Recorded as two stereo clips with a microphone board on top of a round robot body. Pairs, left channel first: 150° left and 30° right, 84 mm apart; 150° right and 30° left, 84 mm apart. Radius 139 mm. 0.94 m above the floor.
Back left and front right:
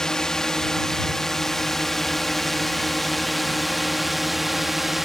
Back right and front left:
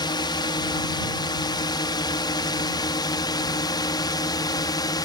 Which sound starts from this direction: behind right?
A drone, at 0.0 s.